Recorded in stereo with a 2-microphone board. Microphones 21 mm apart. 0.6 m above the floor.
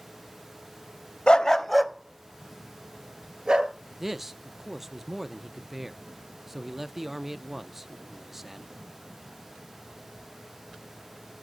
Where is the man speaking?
10° right (ahead or behind), 0.6 m.